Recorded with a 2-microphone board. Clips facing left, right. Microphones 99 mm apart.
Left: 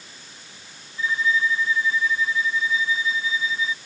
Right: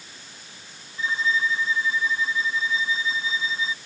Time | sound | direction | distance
1.0 | a violin | 25° right (ahead or behind) | ?